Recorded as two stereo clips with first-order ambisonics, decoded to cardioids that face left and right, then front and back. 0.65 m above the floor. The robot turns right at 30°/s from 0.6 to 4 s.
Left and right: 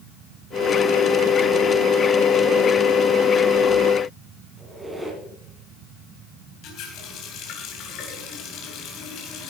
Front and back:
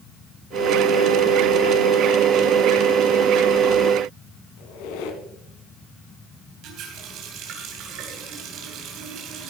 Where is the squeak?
10° right, 2 m.